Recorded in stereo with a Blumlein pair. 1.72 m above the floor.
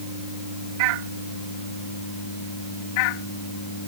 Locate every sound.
Only background noise.